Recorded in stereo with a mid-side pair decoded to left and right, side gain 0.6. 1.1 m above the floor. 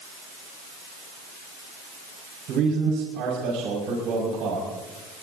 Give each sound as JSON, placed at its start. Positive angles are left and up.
{"t": 2.5, "sound": "a man speaking", "azimuth_deg": -65, "distance_m": 5.5}